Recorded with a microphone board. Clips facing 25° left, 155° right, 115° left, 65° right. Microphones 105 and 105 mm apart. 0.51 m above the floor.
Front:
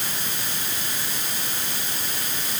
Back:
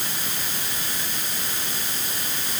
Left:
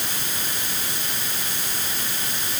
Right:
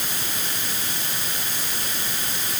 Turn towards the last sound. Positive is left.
No sound to turn to.